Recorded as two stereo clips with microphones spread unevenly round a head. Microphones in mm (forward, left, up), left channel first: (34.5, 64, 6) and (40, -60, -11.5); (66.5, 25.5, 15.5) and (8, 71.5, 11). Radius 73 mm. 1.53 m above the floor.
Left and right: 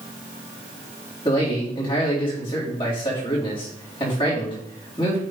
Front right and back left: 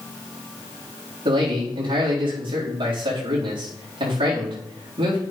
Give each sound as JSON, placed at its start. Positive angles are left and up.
{"t": 1.2, "sound": "a man speaking", "azimuth_deg": 150, "distance_m": 4.0}